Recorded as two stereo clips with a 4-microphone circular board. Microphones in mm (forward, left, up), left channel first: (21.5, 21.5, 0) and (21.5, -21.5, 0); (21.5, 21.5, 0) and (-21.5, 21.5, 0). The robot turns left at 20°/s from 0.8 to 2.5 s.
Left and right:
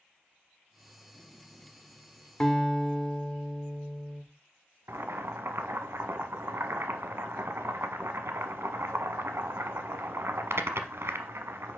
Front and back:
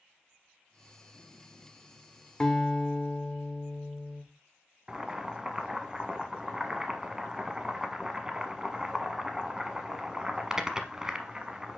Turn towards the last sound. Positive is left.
turn(degrees=-105)